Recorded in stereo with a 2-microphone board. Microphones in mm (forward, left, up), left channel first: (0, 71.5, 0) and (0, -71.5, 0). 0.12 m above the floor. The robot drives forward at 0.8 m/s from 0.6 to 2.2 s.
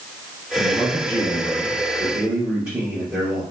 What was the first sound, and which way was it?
A man speaking, 25° right (ahead or behind).